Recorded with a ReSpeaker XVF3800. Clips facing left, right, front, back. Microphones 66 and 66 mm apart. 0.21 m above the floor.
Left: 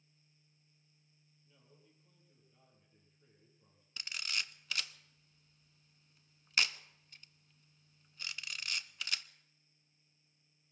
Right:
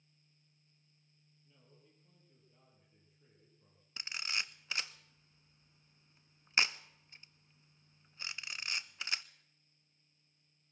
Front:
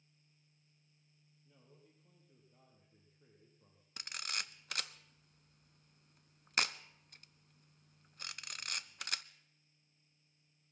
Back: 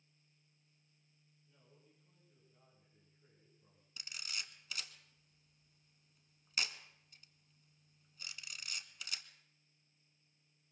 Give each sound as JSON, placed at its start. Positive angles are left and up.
{"t": 1.4, "sound": "a man speaking", "azimuth_deg": -5, "distance_m": 8.0}
{"t": 4.0, "sound": "a camera shutter", "azimuth_deg": -25, "distance_m": 0.6}